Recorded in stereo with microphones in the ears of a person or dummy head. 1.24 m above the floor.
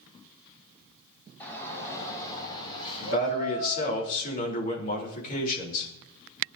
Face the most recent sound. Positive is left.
turn(degrees=55)  # may be behind; listen again after turning